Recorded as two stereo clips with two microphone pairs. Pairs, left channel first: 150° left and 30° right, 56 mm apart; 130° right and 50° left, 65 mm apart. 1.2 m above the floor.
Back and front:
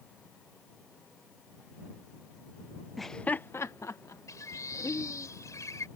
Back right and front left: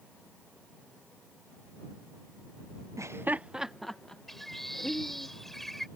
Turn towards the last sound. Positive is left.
turn(degrees=140)